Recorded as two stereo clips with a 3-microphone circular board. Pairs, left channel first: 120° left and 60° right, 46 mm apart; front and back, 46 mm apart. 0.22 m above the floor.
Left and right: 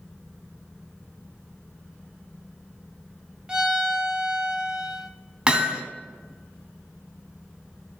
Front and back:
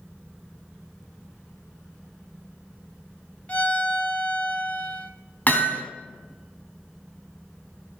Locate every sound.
3.5 s a violin: straight ahead, 0.8 m
5.5 s hammering: straight ahead, 1.5 m